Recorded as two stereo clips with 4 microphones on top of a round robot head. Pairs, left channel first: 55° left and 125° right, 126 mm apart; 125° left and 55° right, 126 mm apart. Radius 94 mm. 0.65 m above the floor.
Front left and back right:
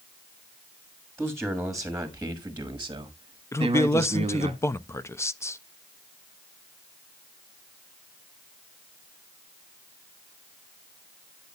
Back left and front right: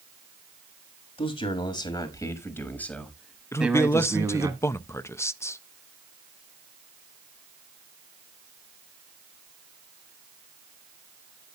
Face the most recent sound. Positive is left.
turn(degrees=90)